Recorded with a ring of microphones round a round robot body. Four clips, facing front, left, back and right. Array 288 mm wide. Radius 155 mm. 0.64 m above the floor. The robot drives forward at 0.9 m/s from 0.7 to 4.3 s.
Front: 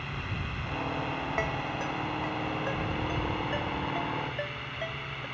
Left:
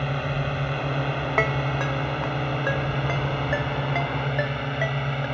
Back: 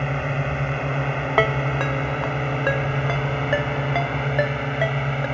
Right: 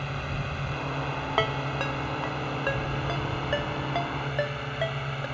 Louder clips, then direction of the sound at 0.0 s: Left 6 dB, back 12 dB; 150° left.